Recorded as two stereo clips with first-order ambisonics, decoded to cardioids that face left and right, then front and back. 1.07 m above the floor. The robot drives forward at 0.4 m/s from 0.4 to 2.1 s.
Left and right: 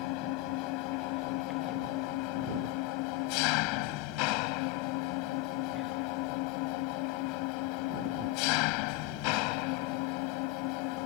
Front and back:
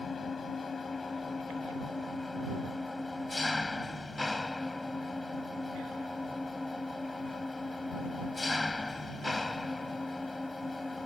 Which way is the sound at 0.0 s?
70° left.